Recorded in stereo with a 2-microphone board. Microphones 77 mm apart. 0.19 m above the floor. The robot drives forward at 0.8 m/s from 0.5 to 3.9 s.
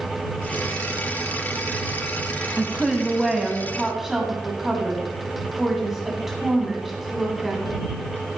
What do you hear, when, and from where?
2.6 s a woman speaking: centre (ahead or behind), 1.2 m; by 7.8 s 5° right (ahead or behind), 1.2 m